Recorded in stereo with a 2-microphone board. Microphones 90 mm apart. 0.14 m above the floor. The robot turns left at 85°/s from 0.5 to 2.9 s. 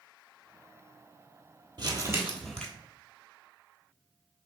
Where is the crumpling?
120° right, 1.0 m; by 2.7 s 165° left, 1.0 m.